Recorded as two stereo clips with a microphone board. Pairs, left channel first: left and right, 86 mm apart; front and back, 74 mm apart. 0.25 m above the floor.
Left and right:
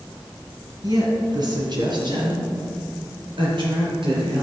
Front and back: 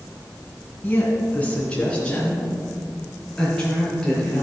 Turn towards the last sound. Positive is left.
turn(degrees=-85)